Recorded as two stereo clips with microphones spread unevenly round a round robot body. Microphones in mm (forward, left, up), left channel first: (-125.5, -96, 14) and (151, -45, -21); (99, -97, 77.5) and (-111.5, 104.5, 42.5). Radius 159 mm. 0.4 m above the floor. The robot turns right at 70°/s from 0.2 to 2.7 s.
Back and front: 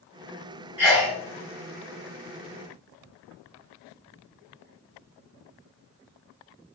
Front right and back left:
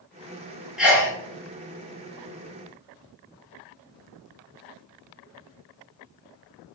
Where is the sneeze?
65° left, 0.8 m; by 1.1 s 90° left, 0.8 m.